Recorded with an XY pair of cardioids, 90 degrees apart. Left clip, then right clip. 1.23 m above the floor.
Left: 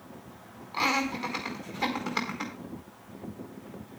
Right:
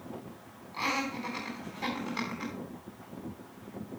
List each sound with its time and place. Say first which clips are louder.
0.7 s laughter: left 5 dB; 65° left, 4 m